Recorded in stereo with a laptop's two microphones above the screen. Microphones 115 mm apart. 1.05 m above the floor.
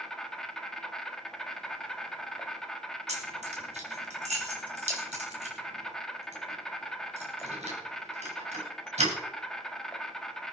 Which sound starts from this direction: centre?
An insect, at 0.0 s.